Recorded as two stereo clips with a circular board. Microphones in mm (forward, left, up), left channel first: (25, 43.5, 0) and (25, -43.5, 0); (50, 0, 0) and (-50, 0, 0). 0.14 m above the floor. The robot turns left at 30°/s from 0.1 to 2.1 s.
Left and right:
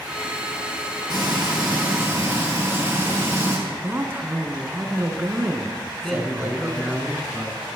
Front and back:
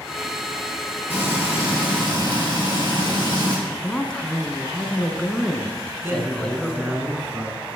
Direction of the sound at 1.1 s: 115° right.